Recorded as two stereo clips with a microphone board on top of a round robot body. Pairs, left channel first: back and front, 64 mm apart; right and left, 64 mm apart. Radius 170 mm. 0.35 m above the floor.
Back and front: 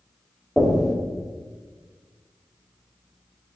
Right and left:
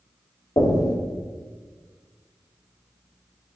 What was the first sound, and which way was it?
Knocking, 90° right.